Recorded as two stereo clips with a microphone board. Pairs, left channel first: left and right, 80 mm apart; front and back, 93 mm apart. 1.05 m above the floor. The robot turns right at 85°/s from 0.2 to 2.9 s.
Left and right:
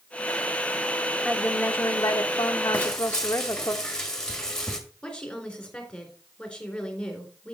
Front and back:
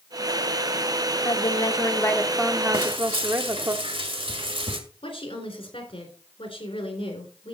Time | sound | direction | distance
1.2 | a woman speaking | 5° left | 0.8 m
2.7 | frying | 160° left | 2.0 m
5.0 | a woman speaking | 10° left | 3.5 m